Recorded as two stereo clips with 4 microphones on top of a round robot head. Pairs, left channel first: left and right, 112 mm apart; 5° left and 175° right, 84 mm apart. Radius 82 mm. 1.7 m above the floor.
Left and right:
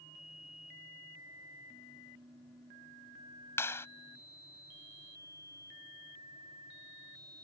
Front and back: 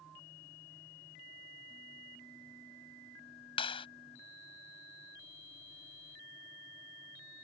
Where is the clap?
20° left.